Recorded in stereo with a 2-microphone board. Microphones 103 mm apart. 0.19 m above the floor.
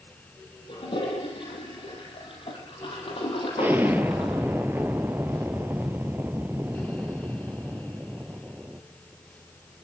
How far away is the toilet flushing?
About 7 m.